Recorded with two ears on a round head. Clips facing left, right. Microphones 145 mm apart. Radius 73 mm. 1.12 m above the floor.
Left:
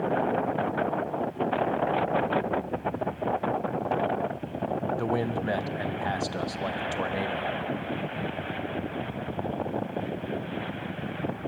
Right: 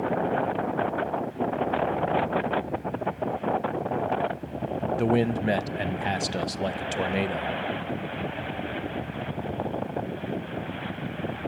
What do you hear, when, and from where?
5.0 s a man speaking: 25° right (ahead or behind), 0.5 m